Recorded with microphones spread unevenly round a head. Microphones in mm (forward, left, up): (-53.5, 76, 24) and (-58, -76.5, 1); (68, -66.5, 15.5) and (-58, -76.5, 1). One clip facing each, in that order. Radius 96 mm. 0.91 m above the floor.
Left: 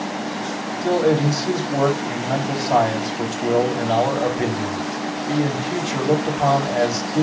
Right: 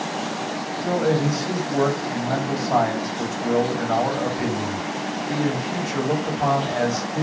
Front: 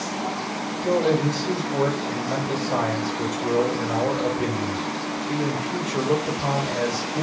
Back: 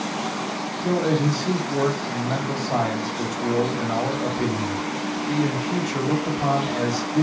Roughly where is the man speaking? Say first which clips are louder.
Left 4 dB, front 1 dB; behind left.